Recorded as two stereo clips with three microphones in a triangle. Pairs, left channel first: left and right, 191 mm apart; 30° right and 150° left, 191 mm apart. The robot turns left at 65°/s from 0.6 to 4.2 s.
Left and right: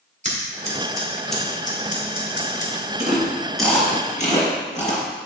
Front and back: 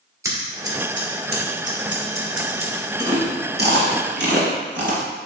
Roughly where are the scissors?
Behind right.